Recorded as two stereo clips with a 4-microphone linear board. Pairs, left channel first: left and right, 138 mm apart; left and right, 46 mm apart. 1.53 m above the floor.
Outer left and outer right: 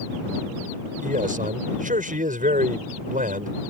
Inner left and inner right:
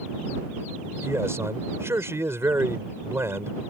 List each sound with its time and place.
1.0 s a man speaking: 70° right (ahead or behind)